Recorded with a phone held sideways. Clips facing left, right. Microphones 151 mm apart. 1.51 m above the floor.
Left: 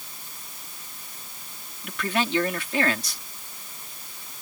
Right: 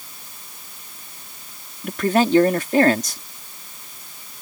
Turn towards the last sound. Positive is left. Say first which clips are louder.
# right 9 dB
turn(degrees=-45)  # may be behind; listen again after turning